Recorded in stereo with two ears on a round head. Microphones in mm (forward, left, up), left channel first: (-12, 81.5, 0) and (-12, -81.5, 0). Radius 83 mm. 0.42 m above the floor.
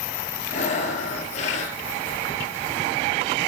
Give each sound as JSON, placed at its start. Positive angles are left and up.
{"t": 0.5, "sound": "breathing", "side_deg": 40, "distance_m": 2.5}